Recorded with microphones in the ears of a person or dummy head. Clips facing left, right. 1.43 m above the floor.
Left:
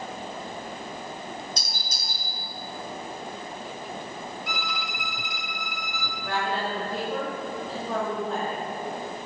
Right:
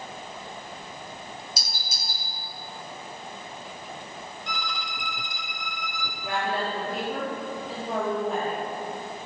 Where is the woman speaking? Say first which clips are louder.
Even; 20° right (ahead or behind), 2.5 m.